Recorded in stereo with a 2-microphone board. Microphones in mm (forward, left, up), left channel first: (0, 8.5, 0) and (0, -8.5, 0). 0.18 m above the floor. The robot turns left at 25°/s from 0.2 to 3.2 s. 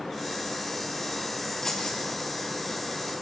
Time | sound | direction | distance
1.6 | keys jangling | 25° left (ahead or behind) | 2.5 m